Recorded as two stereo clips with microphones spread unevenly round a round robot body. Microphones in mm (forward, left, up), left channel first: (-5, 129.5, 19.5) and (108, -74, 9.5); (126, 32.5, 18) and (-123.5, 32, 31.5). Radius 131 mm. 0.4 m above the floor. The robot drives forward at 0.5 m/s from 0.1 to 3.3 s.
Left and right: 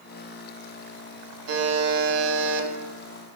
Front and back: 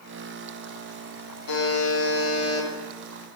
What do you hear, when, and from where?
1.5 s a buzzer: 35° right, 0.8 m; by 2.7 s 85° right, 0.5 m